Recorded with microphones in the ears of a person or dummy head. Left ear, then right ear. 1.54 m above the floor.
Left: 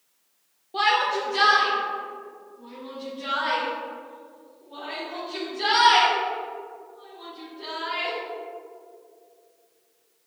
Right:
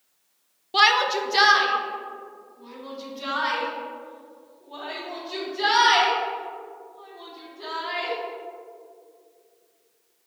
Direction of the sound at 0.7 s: 60° right (ahead or behind).